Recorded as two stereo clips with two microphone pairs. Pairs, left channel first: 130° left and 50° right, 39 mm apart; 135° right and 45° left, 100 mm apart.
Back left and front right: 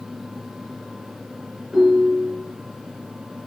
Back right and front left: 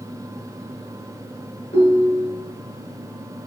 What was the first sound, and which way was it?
A ringtone, 140° right.